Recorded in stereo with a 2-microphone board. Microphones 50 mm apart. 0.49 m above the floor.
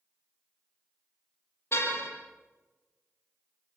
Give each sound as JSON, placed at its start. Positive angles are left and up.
{"t": 1.7, "sound": "a car horn", "side_deg": 55, "distance_m": 8.0}